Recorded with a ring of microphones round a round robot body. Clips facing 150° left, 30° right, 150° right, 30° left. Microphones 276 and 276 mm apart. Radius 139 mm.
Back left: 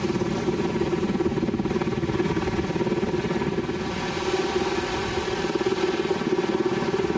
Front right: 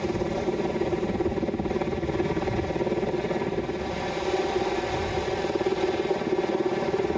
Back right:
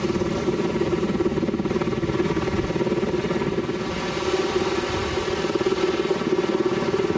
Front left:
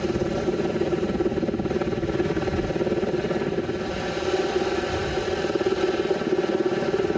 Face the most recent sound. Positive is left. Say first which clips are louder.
# back left 2 dB, back right 1 dB
turn(degrees=150)